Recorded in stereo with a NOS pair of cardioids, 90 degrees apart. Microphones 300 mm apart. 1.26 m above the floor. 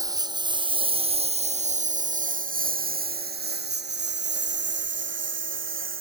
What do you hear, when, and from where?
0.0 s a lawn mower: 10° right; by 6.0 s 40° right